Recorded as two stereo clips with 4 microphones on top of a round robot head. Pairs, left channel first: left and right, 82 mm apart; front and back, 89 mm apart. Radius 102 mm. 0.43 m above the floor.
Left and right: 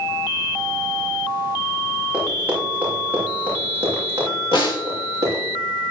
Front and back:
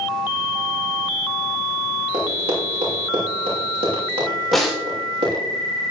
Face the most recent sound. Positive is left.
turn(degrees=90)